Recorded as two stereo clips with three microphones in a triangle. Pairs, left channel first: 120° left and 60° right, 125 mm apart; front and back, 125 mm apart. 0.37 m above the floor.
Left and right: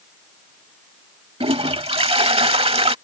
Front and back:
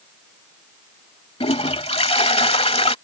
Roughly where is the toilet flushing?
Ahead right.